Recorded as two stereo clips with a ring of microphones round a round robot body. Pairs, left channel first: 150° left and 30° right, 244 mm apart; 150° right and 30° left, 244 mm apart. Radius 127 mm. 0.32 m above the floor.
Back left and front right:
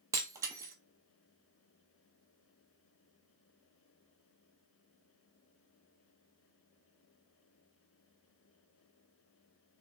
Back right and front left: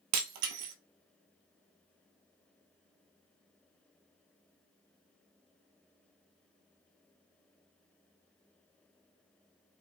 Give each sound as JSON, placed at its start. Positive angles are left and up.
{"t": 0.1, "sound": "breaking glass", "azimuth_deg": 45, "distance_m": 0.5}